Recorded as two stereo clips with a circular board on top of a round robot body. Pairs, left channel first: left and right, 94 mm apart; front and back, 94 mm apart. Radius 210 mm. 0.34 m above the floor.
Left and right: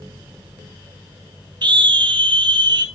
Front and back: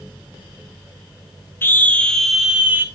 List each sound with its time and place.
1.6 s a scream: 65° right, 2.0 m; by 2.9 s 115° right, 1.7 m